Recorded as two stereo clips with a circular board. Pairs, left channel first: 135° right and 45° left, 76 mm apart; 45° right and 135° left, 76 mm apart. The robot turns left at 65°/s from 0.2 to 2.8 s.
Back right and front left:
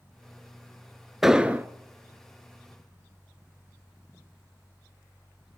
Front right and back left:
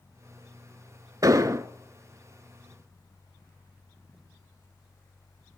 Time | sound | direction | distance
1.2 | an explosion | 130° left | 0.5 m